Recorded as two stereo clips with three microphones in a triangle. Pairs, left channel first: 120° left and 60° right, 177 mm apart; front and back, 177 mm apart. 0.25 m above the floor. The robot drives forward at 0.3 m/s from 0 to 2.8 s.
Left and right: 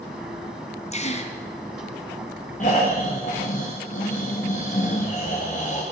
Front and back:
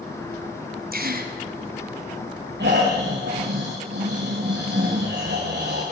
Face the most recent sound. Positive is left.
turn(degrees=165)